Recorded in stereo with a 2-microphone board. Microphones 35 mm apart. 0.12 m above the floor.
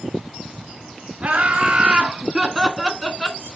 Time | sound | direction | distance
1.2 | laughter | 35° right (ahead or behind) | 1.4 m